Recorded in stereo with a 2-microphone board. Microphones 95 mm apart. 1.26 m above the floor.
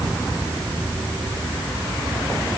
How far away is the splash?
No splash in this recording.